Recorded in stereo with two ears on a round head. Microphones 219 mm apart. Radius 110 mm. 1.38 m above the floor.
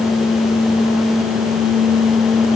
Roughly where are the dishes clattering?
I don't hear dishes clattering.